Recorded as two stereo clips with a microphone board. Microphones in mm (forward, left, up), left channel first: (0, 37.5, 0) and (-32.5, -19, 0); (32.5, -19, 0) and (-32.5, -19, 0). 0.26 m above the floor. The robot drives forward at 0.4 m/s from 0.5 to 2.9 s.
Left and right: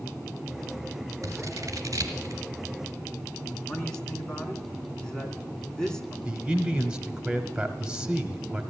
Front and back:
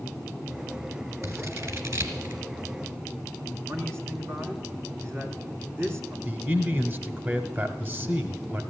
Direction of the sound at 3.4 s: 140° left.